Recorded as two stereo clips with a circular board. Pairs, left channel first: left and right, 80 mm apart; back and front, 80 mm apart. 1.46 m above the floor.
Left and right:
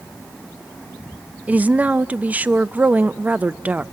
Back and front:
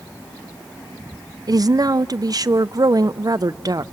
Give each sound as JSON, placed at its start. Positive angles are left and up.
{"t": 1.5, "sound": "a woman speaking", "azimuth_deg": -25, "distance_m": 0.6}